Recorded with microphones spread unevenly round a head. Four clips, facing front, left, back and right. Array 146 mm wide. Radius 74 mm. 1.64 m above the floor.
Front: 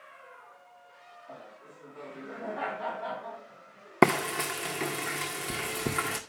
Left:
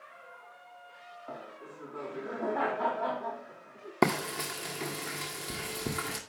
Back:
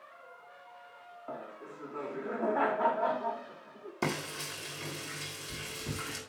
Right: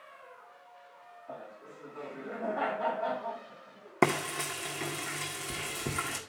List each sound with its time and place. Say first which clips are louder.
1.3 s laughter: even, back 6 dB; 140° left, 3.5 m
4.0 s frying: even, front 12 dB; 5° left, 1.8 m